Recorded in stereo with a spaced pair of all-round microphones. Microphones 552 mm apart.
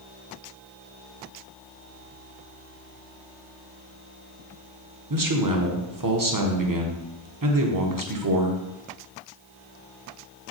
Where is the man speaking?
35° right (ahead or behind), 0.7 m.